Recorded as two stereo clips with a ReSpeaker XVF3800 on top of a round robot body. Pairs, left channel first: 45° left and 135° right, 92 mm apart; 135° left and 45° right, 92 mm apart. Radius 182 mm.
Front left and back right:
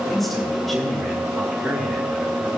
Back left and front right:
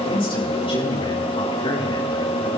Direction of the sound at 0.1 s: 135° left.